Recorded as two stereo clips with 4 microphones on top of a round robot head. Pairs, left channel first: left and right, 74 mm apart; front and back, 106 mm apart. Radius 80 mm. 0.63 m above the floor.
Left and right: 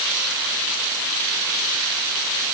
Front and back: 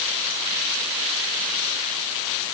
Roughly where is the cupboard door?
I don't hear a cupboard door.